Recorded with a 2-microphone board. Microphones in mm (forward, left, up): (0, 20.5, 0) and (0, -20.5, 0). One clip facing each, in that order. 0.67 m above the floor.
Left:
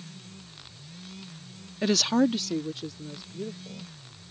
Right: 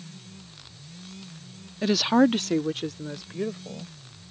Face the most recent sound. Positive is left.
turn(degrees=-80)